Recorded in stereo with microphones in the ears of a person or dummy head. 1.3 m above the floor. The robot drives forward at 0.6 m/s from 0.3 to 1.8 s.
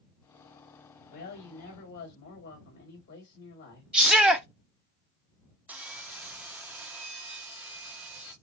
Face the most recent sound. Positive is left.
turn(degrees=-5)  # may be behind; listen again after turning